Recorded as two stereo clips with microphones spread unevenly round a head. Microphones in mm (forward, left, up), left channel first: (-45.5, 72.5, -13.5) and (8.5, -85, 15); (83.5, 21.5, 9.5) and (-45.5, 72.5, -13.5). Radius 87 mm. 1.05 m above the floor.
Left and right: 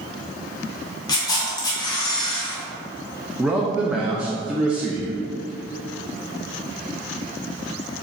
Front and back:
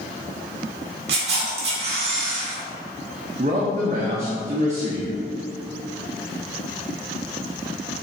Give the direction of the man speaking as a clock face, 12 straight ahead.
5 o'clock.